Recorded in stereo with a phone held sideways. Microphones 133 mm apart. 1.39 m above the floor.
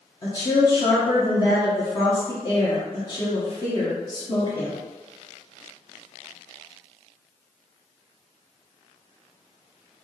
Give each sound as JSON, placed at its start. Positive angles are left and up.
{"t": 0.2, "sound": "a woman speaking", "side_deg": 35, "distance_m": 1.1}